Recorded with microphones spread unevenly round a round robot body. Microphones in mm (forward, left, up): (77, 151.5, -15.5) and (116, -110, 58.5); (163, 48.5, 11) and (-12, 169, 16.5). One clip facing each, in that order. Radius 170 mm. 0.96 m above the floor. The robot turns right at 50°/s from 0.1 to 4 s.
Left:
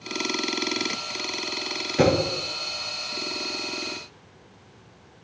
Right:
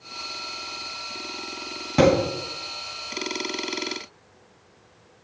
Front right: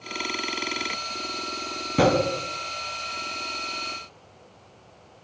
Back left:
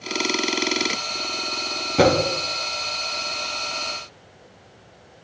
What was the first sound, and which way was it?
A thud, 105° right.